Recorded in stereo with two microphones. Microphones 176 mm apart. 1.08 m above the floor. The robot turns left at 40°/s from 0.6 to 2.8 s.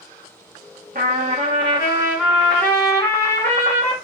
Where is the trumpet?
125° right, 2 m; by 3.9 s 165° left, 2 m.